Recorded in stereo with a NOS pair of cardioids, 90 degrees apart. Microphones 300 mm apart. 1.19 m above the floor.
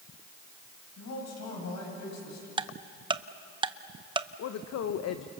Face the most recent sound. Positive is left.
turn(degrees=65)